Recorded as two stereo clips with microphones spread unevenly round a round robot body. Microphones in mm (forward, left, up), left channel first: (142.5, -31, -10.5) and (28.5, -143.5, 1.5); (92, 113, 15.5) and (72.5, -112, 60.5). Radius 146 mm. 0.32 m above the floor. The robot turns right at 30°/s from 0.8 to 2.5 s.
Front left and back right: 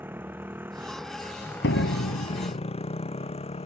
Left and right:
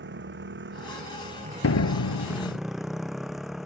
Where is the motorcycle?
60° right; by 3.7 s 5° right.